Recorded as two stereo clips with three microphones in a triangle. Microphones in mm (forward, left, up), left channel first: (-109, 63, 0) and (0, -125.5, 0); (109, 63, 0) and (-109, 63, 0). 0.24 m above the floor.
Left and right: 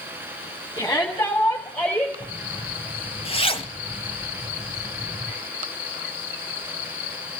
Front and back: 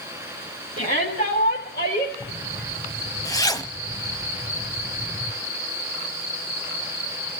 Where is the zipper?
70° left, 0.8 m.